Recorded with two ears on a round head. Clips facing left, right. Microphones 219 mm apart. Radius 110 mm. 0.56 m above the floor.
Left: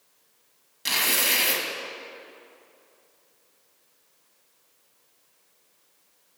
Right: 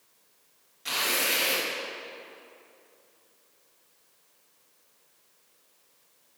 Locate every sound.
0.8 s tearing paper: 55° left (ahead or behind), 0.8 m